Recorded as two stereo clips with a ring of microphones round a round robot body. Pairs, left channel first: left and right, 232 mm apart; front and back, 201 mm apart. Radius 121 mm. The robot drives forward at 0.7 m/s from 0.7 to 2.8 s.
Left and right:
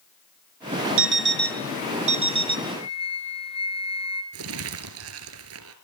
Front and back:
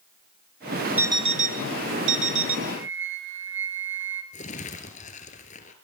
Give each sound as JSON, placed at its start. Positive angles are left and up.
{"t": 1.0, "sound": "an alarm clock", "azimuth_deg": -100, "distance_m": 0.6}
{"t": 2.7, "sound": "a flute", "azimuth_deg": 155, "distance_m": 3.0}
{"t": 4.3, "sound": "crumpling", "azimuth_deg": -60, "distance_m": 2.0}